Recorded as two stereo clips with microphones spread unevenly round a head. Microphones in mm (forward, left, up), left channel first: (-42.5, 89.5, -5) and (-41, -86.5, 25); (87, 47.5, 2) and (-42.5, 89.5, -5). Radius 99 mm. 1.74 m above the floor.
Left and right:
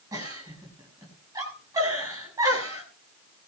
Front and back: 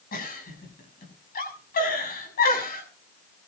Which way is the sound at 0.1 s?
15° right.